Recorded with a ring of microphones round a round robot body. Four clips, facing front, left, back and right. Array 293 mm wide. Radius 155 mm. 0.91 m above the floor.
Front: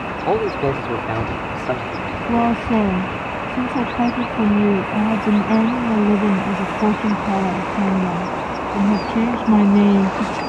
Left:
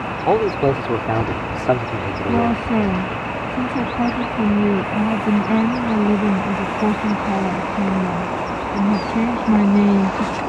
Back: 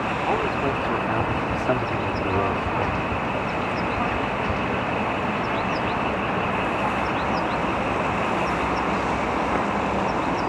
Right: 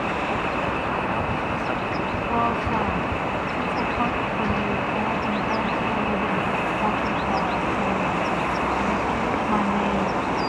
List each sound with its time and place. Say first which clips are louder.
0.3 s a man speaking: left 8 dB, front 7 dB; 55° left; by 3.0 s 130° left
2.3 s a woman speaking: left 6 dB, front 10 dB; 35° left